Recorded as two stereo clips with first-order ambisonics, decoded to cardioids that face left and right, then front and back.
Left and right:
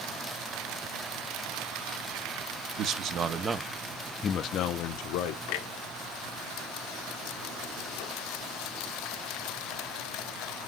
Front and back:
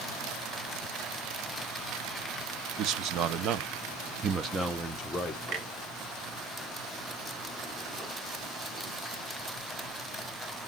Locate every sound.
2.8 s a man speaking: 135° right, 0.8 m; by 5.4 s 85° left, 0.8 m
5.5 s a clunk: 110° left, 1.3 m